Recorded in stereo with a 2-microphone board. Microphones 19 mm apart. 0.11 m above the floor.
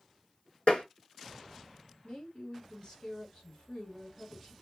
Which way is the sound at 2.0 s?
40° left (ahead or behind).